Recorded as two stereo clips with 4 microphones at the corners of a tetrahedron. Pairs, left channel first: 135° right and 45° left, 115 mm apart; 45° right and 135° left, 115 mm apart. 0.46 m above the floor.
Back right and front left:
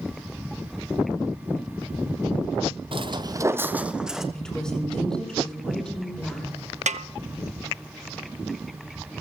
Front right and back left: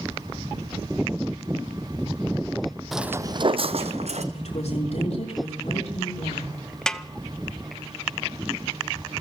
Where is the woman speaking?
50° right, 6 m.